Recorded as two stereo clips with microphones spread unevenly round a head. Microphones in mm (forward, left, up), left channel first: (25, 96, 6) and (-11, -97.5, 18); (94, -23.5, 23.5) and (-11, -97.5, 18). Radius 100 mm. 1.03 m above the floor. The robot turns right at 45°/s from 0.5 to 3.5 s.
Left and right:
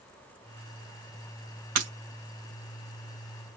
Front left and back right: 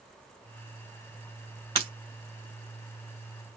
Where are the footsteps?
No footsteps in this recording.